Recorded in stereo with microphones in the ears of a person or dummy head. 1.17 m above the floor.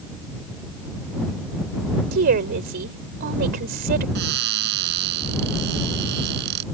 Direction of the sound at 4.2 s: 65° right (ahead or behind).